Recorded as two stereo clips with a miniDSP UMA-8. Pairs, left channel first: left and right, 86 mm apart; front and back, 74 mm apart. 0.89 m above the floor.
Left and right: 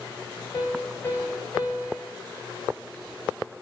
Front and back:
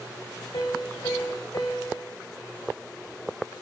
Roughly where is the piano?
Ahead left.